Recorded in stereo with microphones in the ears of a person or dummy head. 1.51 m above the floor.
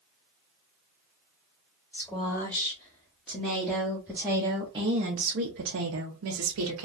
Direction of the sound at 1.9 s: 15° left (ahead or behind).